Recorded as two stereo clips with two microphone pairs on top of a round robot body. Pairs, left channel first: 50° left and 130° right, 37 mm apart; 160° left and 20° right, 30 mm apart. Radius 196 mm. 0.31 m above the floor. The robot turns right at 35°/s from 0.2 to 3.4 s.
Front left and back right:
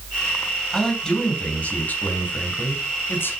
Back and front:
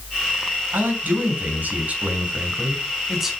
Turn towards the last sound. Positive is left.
turn(degrees=65)